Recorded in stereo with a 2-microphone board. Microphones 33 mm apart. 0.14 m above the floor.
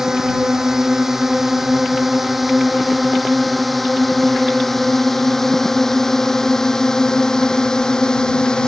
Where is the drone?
15° right (ahead or behind); by 8.7 s 25° left (ahead or behind).